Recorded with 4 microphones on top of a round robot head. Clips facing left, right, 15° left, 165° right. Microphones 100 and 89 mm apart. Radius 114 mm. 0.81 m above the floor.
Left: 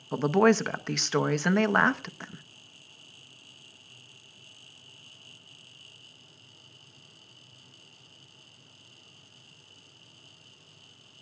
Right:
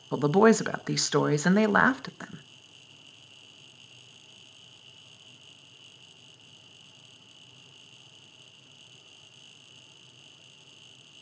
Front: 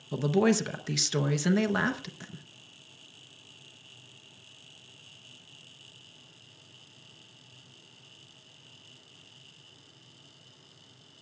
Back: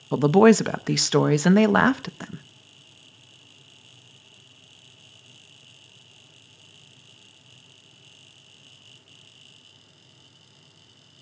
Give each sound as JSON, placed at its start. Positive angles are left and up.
{"t": 0.1, "sound": "a woman speaking", "azimuth_deg": -170, "distance_m": 0.9}